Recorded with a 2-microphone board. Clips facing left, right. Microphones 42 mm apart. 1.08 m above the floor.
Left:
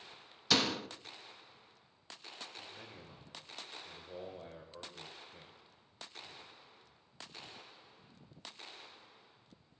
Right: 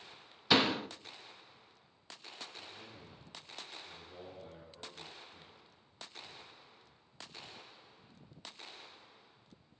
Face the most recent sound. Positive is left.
turn(degrees=80)